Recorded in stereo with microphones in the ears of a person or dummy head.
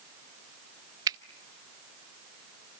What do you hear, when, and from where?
1.1 s a finger snap: 25° right (ahead or behind), 0.7 m